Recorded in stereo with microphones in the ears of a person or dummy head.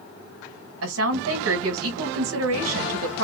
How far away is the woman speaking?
About 2 m.